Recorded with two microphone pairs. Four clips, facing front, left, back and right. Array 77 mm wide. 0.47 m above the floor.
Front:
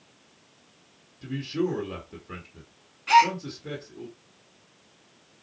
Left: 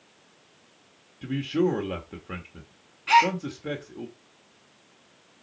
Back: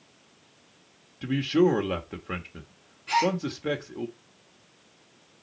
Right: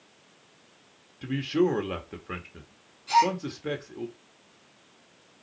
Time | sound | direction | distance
1.2 | a man speaking | 170° right | 1.4 m
3.1 | a gasp | 55° left | 2.5 m